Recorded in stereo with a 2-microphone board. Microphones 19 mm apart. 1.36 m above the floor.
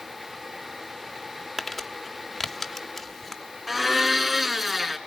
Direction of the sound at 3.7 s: 15° right (ahead or behind).